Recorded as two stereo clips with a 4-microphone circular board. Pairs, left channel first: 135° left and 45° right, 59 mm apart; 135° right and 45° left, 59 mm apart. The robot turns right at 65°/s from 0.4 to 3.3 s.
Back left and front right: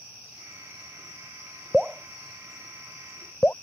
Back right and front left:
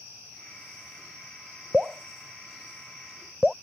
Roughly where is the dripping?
Ahead.